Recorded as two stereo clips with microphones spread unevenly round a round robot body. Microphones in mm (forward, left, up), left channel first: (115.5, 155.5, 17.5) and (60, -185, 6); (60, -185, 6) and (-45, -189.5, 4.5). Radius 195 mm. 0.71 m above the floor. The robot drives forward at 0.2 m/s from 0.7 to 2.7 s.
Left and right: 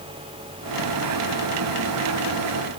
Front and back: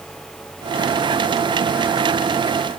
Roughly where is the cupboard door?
I don't hear a cupboard door.